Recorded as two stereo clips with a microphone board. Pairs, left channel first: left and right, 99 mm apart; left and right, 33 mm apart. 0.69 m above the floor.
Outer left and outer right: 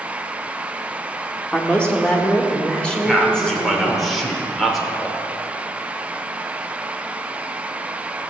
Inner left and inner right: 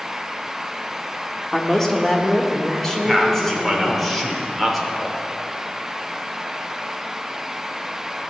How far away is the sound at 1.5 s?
About 1.5 m.